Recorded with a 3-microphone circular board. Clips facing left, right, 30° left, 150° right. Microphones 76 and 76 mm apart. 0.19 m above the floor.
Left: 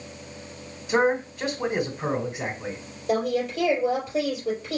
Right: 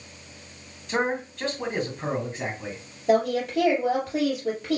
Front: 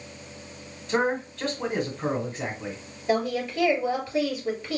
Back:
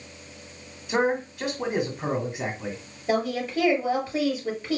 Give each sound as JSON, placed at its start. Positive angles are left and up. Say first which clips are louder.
{"t": 0.9, "sound": "a man speaking", "louder": "left 4 dB, back 1 dB", "azimuth_deg": 155, "distance_m": 1.5}
{"t": 3.1, "sound": "a woman speaking", "louder": "right 3 dB, even", "azimuth_deg": -80, "distance_m": 3.5}